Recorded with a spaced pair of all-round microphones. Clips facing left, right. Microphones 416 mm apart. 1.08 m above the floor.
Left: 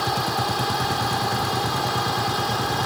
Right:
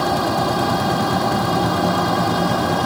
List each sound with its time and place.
0.0 s a fan: 70° right (ahead or behind)